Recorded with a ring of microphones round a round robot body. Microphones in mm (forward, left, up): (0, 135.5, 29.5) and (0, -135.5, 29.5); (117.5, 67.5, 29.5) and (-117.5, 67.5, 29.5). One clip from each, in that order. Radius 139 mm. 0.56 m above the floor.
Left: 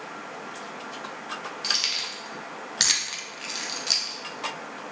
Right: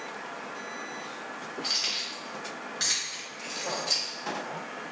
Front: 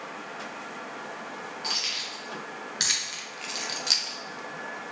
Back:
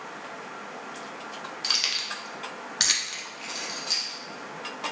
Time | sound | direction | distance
1.6 | keys jangling | 145° left | 1.0 m